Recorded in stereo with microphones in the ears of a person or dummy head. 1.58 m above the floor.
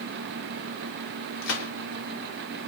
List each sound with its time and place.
1.4 s a gunshot: 75° left (ahead or behind), 0.8 m